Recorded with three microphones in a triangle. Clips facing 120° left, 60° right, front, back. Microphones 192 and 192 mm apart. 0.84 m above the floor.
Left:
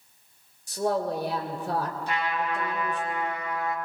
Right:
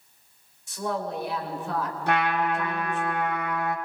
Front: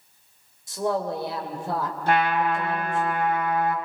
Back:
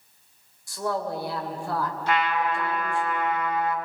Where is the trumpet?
40° right, 2.5 m.